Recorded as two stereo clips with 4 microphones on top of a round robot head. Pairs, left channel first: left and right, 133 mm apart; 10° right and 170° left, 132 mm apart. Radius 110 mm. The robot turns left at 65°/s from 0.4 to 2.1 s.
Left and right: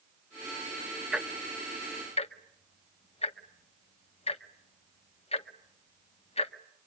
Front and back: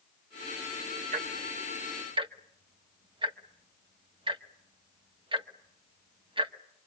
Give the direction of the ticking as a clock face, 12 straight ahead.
6 o'clock.